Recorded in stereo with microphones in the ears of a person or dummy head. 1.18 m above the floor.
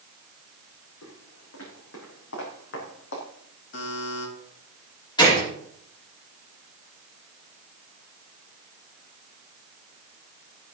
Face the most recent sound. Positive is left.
turn(degrees=30)  # may be behind; listen again after turning